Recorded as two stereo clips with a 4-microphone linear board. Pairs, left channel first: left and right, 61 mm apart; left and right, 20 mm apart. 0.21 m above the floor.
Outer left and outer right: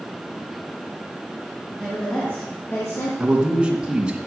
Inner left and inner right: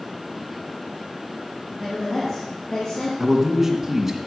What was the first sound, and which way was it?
A woman speaking, 10° left (ahead or behind).